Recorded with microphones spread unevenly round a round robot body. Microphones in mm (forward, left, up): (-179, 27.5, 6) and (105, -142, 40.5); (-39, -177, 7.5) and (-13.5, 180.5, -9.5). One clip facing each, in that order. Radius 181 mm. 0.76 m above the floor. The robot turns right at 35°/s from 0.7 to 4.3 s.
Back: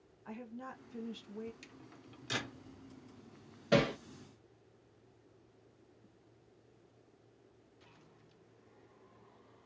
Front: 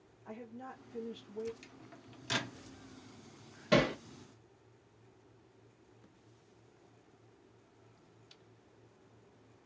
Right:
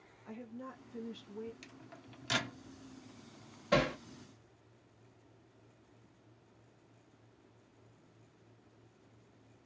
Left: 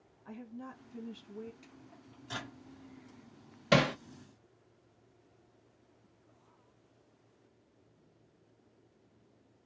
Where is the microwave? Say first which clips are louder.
Front 1 dB, right 1 dB; 140° right, 0.6 m; by 2.6 s 105° right, 0.6 m.